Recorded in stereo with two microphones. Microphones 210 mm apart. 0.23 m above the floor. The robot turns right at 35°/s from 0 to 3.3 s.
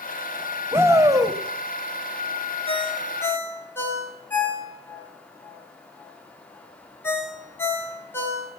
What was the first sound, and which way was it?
A shout, 10° right (ahead or behind).